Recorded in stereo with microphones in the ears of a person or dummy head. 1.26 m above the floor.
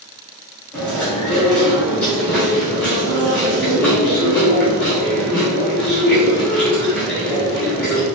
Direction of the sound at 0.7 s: 10° left (ahead or behind).